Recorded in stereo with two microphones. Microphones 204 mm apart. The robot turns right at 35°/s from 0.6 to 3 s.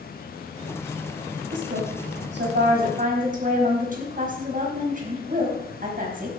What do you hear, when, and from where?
1.5 s a woman speaking: 95° right, 4 m; by 6.3 s 45° right, 4 m